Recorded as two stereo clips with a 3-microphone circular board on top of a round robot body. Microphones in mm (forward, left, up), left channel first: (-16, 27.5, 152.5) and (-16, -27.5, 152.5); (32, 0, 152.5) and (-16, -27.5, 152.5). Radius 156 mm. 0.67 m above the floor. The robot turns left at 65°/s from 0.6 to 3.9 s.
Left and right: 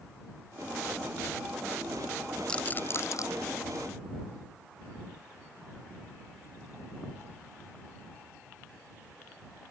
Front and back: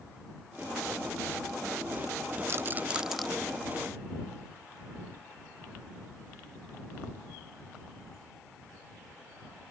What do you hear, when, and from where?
2.5 s a rattle: 165° left; by 3.3 s 115° left